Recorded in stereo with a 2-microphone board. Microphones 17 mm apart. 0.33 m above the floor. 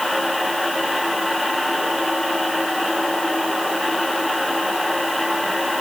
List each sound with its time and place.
Only background noise.